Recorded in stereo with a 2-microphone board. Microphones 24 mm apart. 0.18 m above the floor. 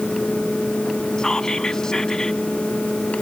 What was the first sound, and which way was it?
Whispering, 25° left (ahead or behind).